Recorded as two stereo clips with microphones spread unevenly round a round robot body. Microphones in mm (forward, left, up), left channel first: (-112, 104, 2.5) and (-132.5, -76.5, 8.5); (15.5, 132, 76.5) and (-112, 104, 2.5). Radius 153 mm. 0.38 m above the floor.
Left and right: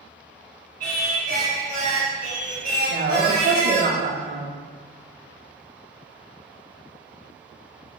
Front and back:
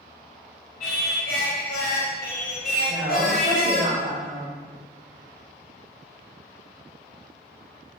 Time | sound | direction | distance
0.8 | singing | 35° right | 0.9 m
2.9 | a woman speaking | 110° right | 1.9 m